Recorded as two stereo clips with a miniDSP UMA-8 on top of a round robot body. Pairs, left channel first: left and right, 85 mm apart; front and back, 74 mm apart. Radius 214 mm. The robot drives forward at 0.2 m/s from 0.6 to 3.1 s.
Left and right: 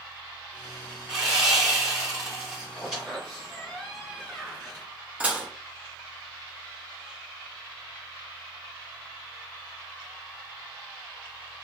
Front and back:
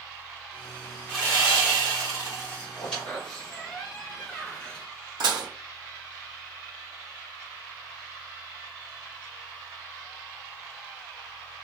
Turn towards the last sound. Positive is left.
turn(degrees=-160)